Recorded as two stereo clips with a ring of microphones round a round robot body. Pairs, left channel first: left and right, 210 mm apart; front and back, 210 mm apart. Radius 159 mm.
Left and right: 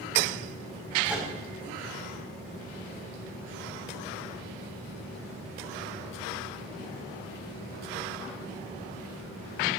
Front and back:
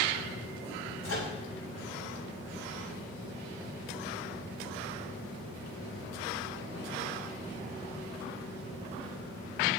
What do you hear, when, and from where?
1.0 s a microwave: 5° right, 7.5 m